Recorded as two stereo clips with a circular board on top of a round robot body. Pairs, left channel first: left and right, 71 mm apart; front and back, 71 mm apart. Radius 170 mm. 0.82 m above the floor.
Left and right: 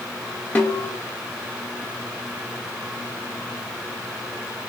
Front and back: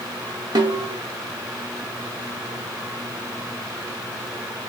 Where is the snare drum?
160° left, 0.7 m.